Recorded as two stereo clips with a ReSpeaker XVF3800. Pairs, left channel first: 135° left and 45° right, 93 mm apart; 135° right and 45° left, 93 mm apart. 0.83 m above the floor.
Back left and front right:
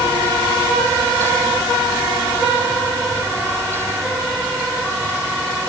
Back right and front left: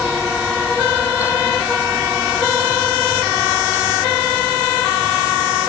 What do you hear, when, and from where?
Only background noise.